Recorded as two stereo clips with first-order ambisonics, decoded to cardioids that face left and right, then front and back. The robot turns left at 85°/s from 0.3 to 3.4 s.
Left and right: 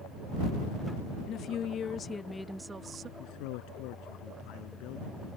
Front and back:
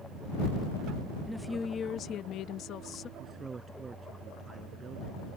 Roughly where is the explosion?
No explosion in this recording.